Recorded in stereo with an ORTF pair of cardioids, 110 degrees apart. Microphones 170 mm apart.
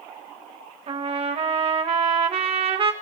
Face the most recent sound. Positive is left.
turn(degrees=-35)